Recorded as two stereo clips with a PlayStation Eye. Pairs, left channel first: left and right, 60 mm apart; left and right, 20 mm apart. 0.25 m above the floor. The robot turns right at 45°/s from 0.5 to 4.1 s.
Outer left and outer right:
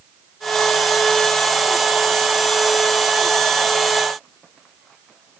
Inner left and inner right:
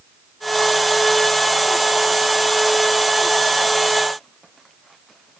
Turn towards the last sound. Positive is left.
No sound to turn to.